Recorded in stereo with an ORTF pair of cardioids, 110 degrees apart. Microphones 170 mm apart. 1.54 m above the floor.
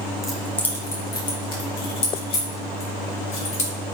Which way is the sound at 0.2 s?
Straight ahead.